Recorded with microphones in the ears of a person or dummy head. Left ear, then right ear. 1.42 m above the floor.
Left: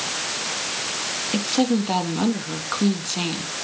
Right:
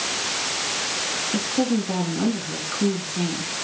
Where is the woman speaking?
50° left (ahead or behind), 2.5 m.